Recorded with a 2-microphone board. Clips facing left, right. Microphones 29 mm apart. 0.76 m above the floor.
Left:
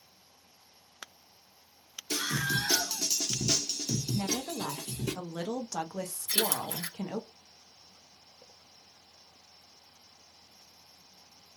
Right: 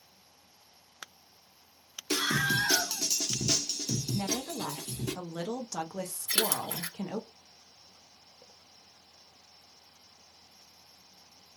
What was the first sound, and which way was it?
A scream, 50° right (ahead or behind).